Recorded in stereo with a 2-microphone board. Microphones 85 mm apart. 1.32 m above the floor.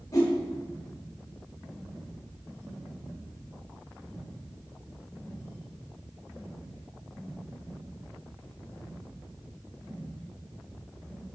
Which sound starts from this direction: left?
A whoosh, at 0.1 s.